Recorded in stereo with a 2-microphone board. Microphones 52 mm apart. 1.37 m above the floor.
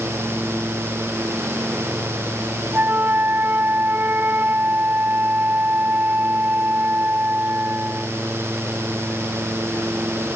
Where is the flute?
35° right (ahead or behind).